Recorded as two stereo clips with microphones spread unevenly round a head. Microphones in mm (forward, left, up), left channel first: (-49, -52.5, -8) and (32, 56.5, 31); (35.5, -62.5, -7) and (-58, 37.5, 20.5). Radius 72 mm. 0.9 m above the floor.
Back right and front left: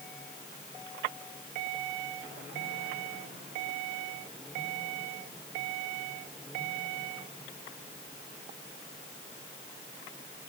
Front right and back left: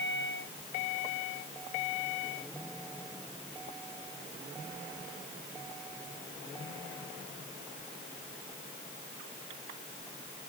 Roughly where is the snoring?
I don't hear snoring.